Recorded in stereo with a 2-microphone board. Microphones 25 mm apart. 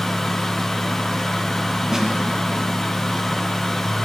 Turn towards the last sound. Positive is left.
turn(degrees=-20)  # may be behind; listen again after turning